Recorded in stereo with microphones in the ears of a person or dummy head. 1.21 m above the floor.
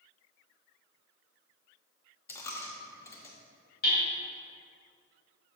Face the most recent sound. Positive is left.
turn(degrees=50)  # may be behind; listen again after turning